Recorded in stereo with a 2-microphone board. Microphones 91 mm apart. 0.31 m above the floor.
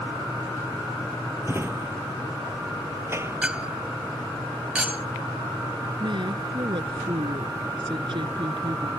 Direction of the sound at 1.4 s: 30° right (ahead or behind).